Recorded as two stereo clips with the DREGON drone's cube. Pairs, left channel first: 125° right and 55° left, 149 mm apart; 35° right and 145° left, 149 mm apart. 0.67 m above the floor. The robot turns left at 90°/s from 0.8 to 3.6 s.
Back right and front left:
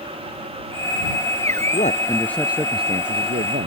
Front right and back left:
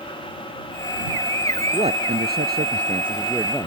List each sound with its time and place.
1.7 s a man speaking: 155° right; by 3.7 s 40° left